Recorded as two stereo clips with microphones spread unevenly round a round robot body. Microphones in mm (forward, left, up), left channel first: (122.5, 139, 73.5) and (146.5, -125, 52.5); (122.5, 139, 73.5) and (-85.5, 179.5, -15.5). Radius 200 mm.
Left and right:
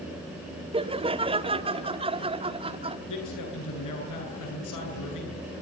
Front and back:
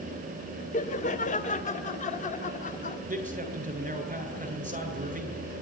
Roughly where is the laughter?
Right.